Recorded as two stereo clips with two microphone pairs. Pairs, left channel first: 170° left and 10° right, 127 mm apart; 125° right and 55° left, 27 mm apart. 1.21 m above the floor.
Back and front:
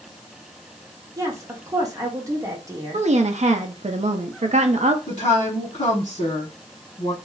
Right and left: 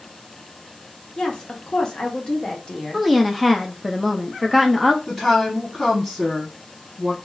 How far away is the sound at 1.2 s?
About 0.9 m.